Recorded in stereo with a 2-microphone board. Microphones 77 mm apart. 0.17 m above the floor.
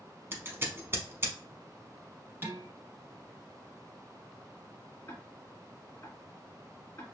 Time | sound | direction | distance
0.3 | scissors | 30° right (ahead or behind) | 0.8 m
2.4 | dishes clattering | 30° right (ahead or behind) | 1.7 m
5.1 | ticking | 30° left (ahead or behind) | 1.8 m